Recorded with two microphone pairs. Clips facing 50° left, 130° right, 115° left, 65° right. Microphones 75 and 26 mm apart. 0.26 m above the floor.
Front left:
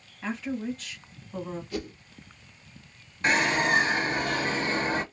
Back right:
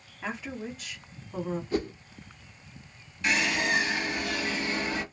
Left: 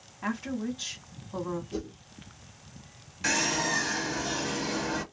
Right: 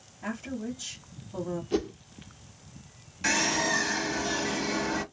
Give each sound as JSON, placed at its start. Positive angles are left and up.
{"t": 0.2, "sound": "a woman speaking", "azimuth_deg": 150, "distance_m": 2.0}
{"t": 1.7, "sound": "a whoosh", "azimuth_deg": -75, "distance_m": 0.8}
{"t": 3.2, "sound": "a bird", "azimuth_deg": 20, "distance_m": 1.0}